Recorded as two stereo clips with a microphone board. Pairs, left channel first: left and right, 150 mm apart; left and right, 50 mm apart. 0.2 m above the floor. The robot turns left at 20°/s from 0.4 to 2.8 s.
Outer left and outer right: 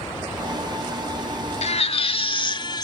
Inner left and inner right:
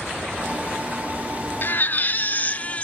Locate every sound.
1.6 s a baby crying: 45° left (ahead or behind), 0.6 m; by 2.9 s 30° left (ahead or behind), 0.6 m